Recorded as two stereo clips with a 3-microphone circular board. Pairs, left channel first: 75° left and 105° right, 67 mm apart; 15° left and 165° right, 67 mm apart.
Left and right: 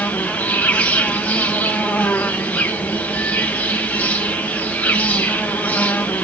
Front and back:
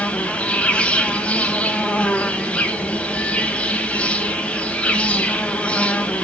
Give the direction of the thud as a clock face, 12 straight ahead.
No thud in this recording.